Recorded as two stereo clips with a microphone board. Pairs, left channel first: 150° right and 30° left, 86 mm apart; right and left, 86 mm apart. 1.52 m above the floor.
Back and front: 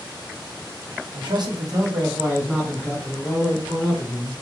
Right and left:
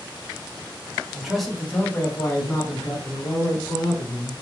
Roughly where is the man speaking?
Ahead.